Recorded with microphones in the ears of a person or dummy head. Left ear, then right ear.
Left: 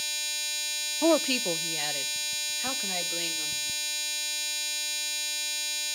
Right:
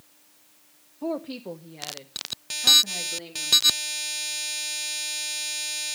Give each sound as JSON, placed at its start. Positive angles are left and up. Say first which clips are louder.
{"t": 1.0, "sound": "a woman speaking", "louder": "left 7 dB", "side_deg": 55, "distance_m": 0.5}